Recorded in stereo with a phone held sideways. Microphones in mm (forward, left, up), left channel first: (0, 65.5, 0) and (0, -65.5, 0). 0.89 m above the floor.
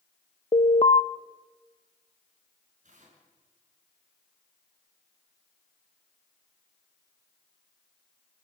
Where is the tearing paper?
70° right (ahead or behind), 6 m.